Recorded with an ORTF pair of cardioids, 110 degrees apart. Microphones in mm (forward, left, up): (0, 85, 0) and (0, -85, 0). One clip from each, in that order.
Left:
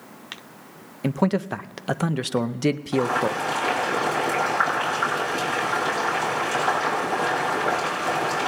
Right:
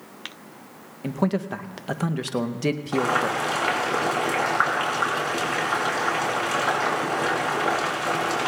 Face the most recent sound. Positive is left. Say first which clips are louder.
# right 2 dB
turn(degrees=-25)